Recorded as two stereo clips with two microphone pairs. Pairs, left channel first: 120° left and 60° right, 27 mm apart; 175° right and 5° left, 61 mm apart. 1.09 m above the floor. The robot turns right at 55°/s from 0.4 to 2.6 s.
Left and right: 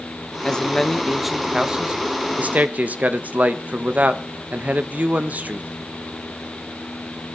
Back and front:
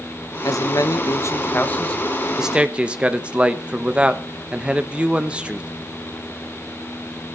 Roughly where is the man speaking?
Behind.